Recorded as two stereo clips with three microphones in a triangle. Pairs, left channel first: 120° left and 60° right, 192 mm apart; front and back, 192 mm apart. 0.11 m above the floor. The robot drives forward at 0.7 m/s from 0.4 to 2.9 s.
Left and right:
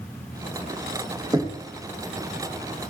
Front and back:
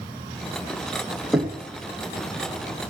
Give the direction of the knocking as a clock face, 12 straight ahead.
3 o'clock.